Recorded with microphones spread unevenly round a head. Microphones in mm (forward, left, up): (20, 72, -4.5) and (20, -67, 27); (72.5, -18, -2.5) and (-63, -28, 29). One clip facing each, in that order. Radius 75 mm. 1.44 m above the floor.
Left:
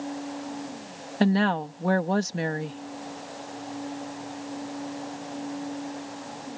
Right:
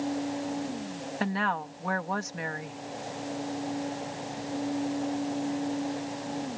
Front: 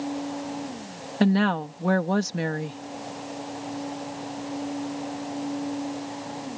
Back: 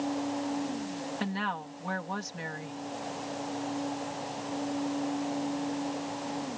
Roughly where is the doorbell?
I don't hear a doorbell.